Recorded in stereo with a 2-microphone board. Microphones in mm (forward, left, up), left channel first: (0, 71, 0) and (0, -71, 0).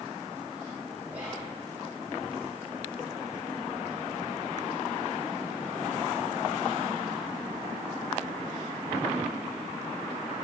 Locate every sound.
1.1 s whispering: 10° right (ahead or behind), 4 m